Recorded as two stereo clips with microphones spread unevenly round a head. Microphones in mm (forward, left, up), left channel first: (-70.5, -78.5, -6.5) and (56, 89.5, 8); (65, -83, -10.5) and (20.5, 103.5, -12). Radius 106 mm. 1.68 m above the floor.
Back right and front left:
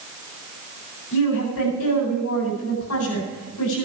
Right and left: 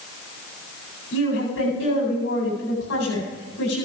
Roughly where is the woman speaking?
Behind right.